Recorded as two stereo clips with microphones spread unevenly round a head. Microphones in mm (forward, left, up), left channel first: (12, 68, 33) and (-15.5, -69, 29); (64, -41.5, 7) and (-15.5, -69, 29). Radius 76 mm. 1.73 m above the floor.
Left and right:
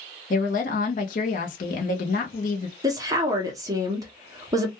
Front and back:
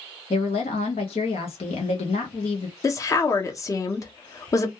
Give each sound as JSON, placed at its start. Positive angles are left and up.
{"t": 0.3, "sound": "a woman speaking", "azimuth_deg": 50, "distance_m": 0.6}
{"t": 2.8, "sound": "a woman speaking", "azimuth_deg": -35, "distance_m": 0.7}